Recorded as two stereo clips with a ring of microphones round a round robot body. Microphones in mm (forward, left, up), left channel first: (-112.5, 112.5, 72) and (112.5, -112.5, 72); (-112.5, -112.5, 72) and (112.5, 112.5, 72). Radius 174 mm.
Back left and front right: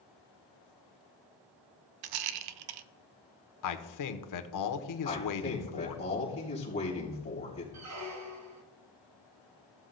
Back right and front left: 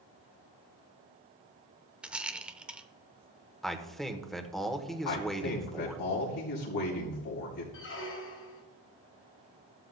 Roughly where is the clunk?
No clunk in this recording.